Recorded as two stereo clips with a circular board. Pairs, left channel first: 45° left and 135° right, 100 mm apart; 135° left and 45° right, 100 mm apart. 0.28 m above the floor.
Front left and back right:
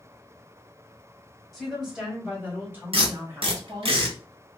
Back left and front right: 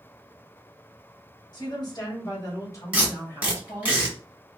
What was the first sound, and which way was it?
A woman speaking, 135° left.